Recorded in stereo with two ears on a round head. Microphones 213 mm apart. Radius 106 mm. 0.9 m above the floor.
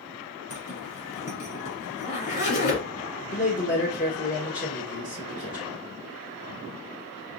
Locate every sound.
0.5 s a zipper: 45° left (ahead or behind), 3 m
3.3 s a man speaking: 35° left (ahead or behind), 1.1 m